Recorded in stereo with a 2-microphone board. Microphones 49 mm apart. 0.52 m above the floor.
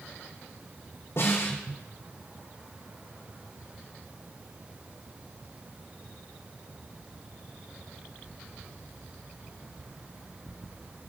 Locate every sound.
1.2 s a snare drum: 65° left (ahead or behind), 7 m